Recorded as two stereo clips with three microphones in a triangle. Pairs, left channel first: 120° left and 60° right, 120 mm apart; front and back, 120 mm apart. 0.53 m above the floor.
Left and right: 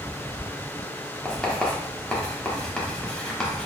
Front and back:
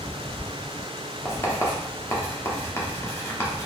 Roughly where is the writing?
Ahead left.